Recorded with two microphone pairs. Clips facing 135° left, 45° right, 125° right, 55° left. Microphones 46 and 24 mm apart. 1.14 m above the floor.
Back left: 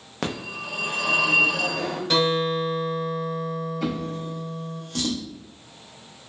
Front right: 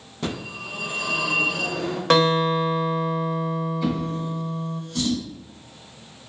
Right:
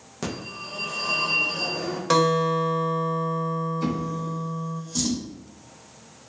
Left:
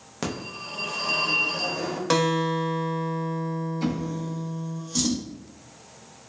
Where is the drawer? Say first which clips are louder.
Front right 3 dB, right 1 dB; 130° left, 0.8 m.